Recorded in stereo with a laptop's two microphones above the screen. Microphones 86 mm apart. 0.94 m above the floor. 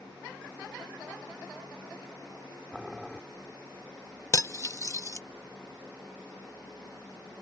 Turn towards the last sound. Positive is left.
turn(degrees=40)  # may be behind; listen again after turning